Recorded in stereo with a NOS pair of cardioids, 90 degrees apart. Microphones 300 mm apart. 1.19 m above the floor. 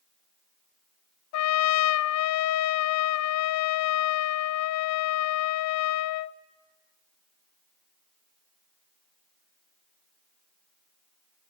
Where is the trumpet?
70° left, 0.5 m.